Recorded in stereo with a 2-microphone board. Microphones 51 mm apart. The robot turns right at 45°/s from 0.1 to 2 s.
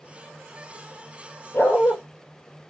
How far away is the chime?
No chime in this recording.